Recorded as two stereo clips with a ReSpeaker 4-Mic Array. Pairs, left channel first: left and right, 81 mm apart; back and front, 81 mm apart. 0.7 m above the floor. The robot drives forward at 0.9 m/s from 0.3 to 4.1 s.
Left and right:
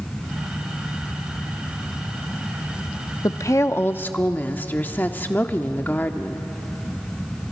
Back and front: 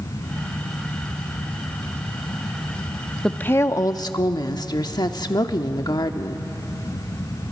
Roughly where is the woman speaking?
Left.